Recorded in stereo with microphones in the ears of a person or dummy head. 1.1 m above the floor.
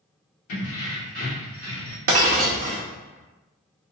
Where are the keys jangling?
70° left (ahead or behind), 1.0 m; by 2.0 s 5° left (ahead or behind), 1.2 m.